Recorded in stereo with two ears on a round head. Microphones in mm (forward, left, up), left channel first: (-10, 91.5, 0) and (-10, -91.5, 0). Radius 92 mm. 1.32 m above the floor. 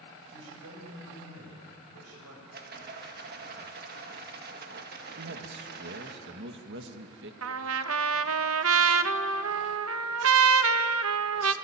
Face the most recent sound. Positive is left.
turn(degrees=-70)  # may be behind; listen again after turning